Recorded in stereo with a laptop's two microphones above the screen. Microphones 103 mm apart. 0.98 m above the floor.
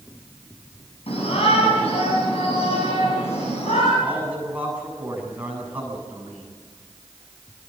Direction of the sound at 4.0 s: 15° right (ahead or behind).